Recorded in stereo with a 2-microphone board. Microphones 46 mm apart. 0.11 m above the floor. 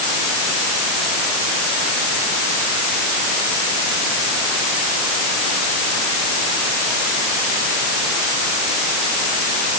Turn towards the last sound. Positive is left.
No sound to turn to.